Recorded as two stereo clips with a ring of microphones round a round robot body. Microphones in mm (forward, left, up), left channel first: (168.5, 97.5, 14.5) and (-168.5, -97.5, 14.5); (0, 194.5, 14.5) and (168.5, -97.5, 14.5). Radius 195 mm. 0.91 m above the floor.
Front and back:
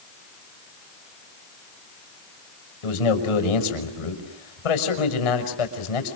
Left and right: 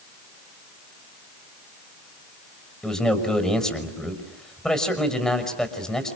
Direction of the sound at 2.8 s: 30° left.